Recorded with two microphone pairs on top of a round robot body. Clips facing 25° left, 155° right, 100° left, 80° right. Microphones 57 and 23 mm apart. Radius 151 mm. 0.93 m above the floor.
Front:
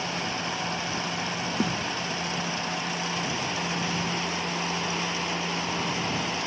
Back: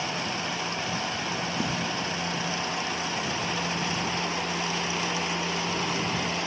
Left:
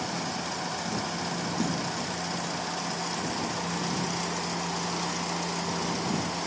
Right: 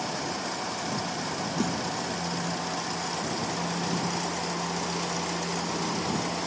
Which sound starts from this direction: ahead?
A snare drum, at 1.6 s.